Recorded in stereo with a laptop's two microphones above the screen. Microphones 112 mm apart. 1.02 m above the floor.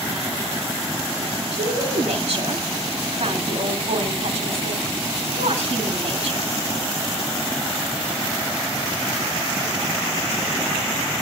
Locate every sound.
1.5 s a woman speaking: 65° right (ahead or behind), 3 m